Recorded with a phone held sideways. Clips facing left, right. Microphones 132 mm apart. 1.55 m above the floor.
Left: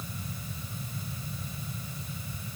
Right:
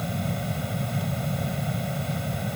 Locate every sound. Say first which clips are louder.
0.0 s a fan: right 12 dB; 75° right (ahead or behind)